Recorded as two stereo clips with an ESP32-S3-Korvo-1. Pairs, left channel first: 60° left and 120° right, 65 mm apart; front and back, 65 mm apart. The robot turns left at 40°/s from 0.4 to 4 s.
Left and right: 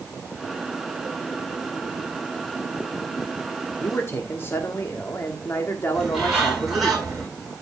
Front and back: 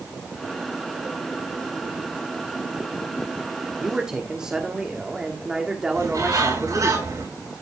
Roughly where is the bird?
Behind left.